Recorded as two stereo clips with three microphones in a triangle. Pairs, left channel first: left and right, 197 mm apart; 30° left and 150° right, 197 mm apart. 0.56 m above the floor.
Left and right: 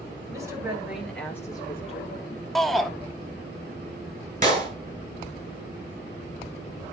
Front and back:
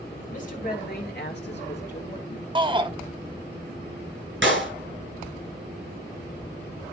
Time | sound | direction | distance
0.3 | a woman speaking | 15° right | 2.5 m
2.5 | a shout | straight behind | 1.0 m
4.4 | a clap | 135° right | 4 m